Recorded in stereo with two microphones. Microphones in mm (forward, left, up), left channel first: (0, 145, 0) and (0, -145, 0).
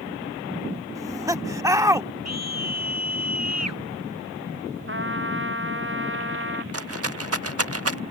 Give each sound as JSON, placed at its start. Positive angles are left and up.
{"t": 0.9, "sound": "laughter", "side_deg": -10}
{"t": 2.2, "sound": "a scream", "side_deg": -60}
{"t": 4.9, "sound": "a trumpet", "side_deg": -40}
{"t": 6.7, "sound": "a rattle", "side_deg": -50}